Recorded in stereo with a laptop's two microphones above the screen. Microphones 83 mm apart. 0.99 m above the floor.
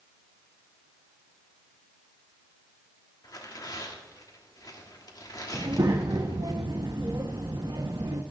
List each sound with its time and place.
3.2 s tearing paper: 45° left (ahead or behind), 1.3 m
5.5 s a child speaking: 55° right (ahead or behind), 1.0 m